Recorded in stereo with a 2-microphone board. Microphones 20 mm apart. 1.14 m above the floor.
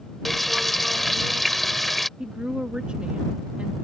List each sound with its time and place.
0.2 s frying: 10° left (ahead or behind)
2.2 s a woman speaking: 80° right